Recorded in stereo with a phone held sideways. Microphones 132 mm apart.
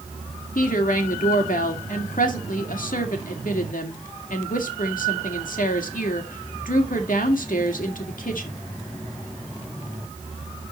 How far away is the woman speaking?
About 2 m.